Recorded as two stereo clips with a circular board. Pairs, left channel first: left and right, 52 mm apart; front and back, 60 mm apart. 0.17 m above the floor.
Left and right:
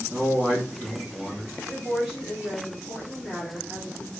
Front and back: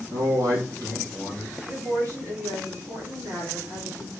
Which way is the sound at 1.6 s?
170° right.